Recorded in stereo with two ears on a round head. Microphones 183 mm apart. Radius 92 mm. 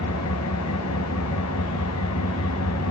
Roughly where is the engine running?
Left.